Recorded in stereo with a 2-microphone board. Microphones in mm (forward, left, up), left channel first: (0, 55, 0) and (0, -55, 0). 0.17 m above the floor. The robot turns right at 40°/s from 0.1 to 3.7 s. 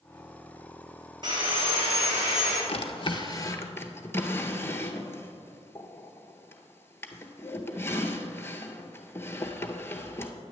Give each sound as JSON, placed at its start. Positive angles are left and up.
{"t": 1.2, "sound": "sawing", "azimuth_deg": -145, "distance_m": 2.5}
{"t": 2.7, "sound": "a drawer", "side_deg": 60, "distance_m": 0.7}